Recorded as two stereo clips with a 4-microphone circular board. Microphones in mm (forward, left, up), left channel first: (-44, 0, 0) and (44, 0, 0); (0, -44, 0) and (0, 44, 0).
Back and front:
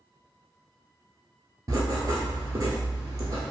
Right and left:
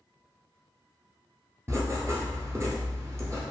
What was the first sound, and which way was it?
Writing, 35° left.